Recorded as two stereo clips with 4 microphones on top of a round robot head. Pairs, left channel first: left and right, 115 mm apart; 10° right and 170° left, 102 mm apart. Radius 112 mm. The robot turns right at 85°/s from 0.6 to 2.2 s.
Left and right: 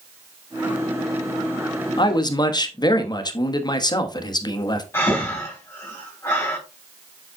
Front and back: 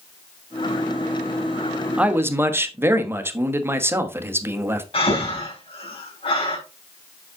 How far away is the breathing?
About 3.5 m.